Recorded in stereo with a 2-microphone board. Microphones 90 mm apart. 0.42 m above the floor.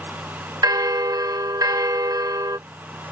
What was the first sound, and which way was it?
A bell, 45° right (ahead or behind).